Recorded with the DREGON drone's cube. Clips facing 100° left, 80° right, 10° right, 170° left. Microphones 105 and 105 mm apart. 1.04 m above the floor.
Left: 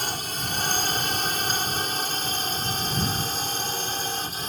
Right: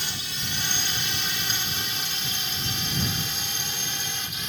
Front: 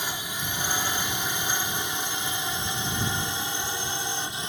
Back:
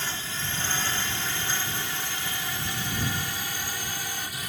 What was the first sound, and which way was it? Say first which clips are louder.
A drone: left 5 dB, front 1 dB; 65° left.